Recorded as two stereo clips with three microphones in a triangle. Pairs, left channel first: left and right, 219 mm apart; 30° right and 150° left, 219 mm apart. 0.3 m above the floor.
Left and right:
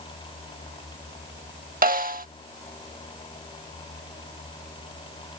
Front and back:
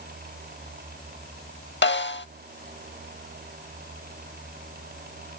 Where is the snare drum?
50° right.